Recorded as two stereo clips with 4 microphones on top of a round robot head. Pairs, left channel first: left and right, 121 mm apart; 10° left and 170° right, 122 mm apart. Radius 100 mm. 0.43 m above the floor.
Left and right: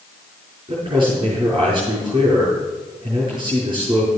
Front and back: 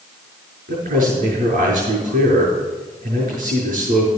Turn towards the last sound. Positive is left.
turn(degrees=-150)